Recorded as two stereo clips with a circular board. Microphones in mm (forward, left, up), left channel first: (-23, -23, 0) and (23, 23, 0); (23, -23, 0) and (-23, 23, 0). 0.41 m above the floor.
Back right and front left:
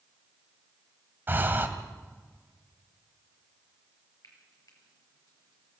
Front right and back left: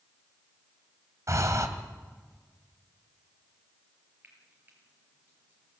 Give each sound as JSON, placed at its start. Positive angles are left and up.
{"t": 1.3, "sound": "breathing", "azimuth_deg": 100, "distance_m": 1.9}
{"t": 4.2, "sound": "frying", "azimuth_deg": -165, "distance_m": 6.0}